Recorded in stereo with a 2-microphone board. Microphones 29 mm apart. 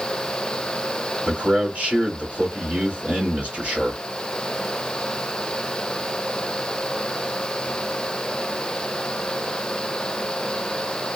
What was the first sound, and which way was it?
A man speaking, 65° right (ahead or behind).